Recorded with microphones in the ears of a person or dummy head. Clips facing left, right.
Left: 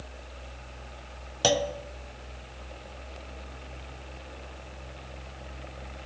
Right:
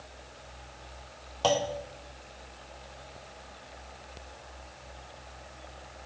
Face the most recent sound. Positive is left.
turn(degrees=25)  # may be behind; listen again after turning